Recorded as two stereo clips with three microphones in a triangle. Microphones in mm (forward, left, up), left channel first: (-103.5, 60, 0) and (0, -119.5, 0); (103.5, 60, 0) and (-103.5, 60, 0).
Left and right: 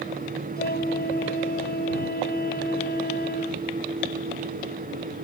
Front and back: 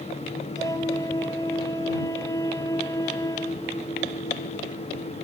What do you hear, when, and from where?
0.6 s a flute: 75° left